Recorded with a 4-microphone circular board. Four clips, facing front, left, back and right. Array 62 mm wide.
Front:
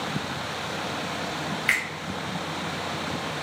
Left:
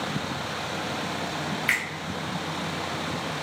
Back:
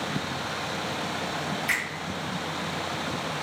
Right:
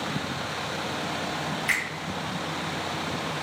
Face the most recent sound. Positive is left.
turn(degrees=25)